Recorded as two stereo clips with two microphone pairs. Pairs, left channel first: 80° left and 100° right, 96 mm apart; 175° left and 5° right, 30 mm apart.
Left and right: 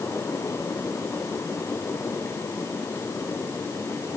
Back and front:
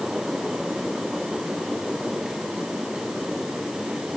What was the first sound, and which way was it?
Only background noise.